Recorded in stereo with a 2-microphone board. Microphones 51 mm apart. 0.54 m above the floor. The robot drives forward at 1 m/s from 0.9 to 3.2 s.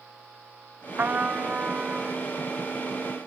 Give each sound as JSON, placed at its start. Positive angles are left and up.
{"t": 1.0, "sound": "a trumpet", "side_deg": -40, "distance_m": 0.6}